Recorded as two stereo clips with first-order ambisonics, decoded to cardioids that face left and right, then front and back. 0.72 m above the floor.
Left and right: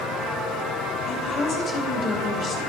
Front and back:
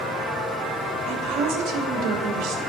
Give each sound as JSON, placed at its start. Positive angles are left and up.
{"t": 1.1, "sound": "a woman speaking", "azimuth_deg": 155, "distance_m": 2.5}